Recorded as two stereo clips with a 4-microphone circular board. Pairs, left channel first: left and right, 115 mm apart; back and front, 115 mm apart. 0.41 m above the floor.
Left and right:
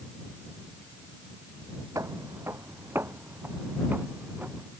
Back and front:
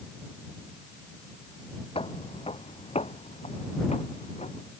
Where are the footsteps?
150° right; by 4.7 s 165° right.